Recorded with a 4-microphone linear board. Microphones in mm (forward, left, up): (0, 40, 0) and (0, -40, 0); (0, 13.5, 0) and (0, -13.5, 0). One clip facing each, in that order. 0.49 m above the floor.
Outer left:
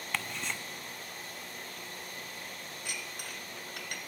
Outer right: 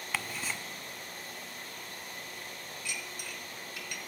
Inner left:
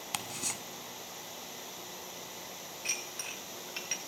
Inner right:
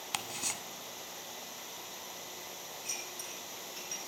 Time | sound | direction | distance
0.1 | ticking | 5° right (ahead or behind) | 0.5 m
2.9 | dishes clattering | 50° left (ahead or behind) | 1.1 m